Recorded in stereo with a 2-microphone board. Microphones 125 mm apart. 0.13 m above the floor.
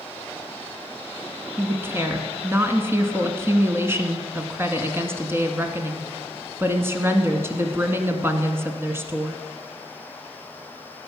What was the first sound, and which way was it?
A woman speaking, 20° right (ahead or behind).